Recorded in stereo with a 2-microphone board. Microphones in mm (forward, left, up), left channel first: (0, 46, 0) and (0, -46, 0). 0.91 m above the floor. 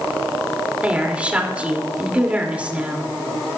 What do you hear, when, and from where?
0.8 s a woman speaking: 15° right (ahead or behind), 3 m